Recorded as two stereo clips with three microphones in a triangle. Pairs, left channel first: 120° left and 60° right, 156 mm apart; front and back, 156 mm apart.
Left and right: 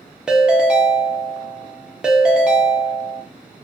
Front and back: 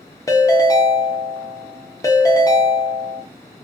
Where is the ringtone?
15° left, 0.6 m.